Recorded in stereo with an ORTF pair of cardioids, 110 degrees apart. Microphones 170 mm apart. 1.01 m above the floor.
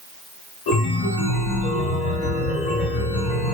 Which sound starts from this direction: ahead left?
A chime, at 0.7 s.